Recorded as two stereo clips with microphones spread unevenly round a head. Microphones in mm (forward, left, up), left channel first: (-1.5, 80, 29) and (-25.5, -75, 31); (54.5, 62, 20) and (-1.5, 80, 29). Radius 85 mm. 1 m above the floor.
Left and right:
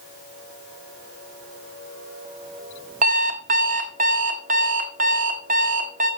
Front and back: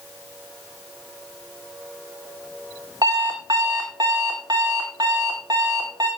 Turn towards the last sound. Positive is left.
turn(degrees=-140)